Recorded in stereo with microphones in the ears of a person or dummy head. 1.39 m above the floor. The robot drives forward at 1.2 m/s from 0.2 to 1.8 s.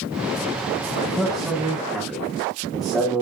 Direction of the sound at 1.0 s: 5° right (ahead or behind).